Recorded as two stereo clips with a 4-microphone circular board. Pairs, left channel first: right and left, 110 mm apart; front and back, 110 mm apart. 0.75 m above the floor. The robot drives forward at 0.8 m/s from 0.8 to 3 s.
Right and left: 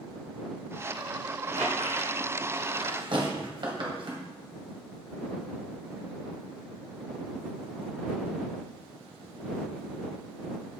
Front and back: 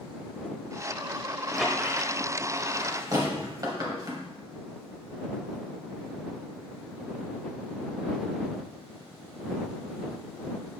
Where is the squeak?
90° left, 1.6 m; by 4.2 s 125° left, 2.0 m.